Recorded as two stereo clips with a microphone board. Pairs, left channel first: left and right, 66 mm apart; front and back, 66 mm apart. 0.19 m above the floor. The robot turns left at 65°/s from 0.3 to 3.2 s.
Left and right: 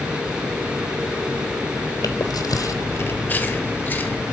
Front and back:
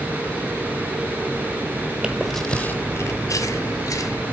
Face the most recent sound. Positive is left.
turn(degrees=30)